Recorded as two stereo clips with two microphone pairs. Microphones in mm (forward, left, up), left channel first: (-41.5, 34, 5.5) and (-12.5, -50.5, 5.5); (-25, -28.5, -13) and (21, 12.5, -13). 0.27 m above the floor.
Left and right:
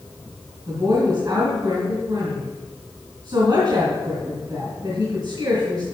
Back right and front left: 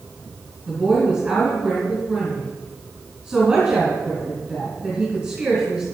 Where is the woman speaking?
35° right, 2.5 m.